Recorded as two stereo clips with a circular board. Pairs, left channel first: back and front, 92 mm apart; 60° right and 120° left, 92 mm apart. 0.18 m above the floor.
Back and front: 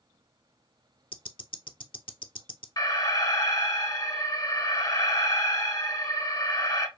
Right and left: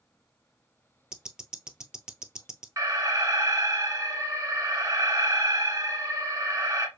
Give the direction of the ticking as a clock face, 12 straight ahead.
5 o'clock.